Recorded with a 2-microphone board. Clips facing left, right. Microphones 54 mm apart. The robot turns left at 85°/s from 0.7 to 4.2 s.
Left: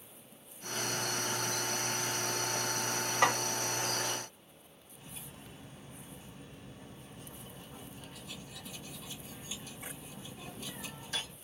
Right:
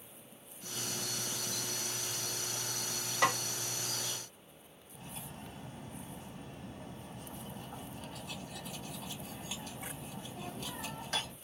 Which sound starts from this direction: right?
Cutlery clinking, at 4.9 s.